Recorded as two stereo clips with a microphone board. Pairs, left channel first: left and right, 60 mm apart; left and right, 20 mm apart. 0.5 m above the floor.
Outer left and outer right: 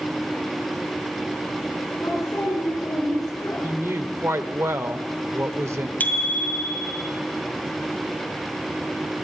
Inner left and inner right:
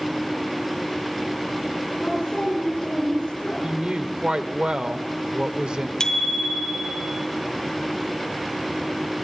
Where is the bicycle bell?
30° left (ahead or behind), 2 m.